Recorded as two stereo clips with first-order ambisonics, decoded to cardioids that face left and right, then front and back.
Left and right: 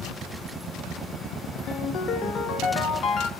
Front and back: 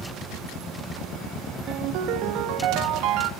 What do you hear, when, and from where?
1.7 s a ringtone: 145° left, 0.5 m